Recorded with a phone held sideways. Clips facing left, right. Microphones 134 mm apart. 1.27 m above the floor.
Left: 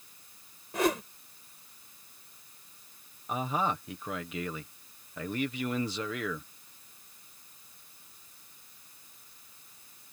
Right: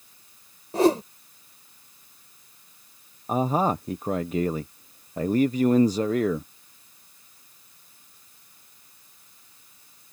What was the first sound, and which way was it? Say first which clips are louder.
A whoosh: right 9 dB; 35° right (ahead or behind).